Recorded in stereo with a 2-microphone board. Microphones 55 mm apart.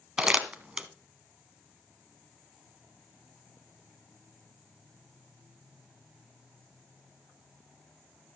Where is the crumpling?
15° right (ahead or behind), 1.3 m.